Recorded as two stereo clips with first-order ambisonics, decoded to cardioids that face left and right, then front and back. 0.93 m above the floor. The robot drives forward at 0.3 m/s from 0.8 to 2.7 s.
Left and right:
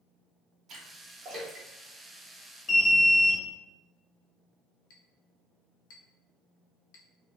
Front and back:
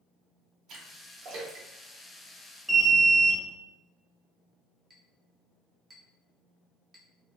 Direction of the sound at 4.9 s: 105° left.